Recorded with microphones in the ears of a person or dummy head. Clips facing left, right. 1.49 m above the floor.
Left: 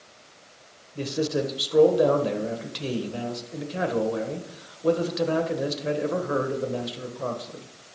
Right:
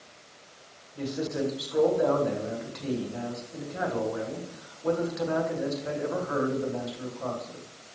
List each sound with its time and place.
0.9 s a man speaking: 40° left (ahead or behind), 1.4 m